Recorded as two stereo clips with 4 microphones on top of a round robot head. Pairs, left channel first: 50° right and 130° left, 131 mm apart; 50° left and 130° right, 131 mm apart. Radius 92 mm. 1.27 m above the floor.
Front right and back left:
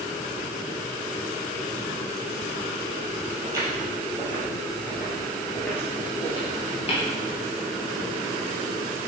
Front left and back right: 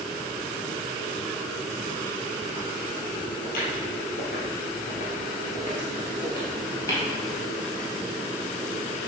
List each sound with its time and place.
3.4 s footsteps: 65° left, 2 m; by 7.0 s 15° right, 1.5 m